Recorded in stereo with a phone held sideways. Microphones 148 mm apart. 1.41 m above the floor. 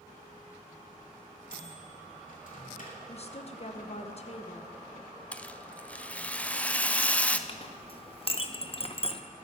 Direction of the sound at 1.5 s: 65° left (ahead or behind).